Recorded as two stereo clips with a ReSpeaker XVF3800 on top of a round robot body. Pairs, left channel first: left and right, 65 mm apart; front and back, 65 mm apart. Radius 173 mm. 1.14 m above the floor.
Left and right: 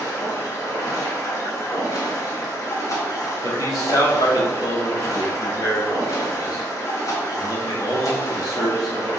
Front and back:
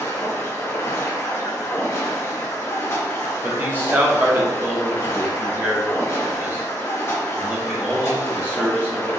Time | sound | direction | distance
0.0 | running water | 55° left | 2.5 m
3.4 | a man speaking | 120° left | 3.5 m